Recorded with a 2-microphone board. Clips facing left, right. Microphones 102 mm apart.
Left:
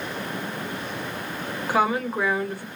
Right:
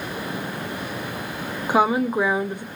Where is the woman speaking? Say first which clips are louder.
Right 4 dB; 20° right (ahead or behind), 0.6 m.